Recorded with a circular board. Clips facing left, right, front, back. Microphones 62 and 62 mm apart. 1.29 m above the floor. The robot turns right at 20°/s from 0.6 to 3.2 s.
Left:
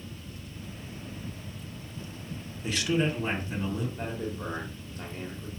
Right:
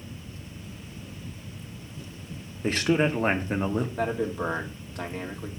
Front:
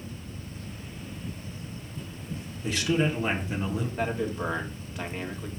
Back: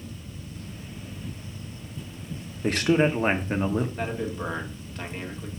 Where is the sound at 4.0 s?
80° right, 1.4 m.